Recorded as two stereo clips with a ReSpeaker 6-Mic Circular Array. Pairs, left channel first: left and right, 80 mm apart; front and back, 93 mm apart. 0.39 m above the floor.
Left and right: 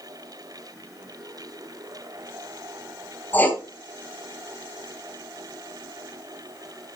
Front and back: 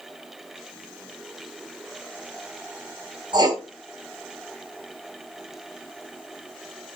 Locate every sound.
3.3 s writing: 155° left, 2 m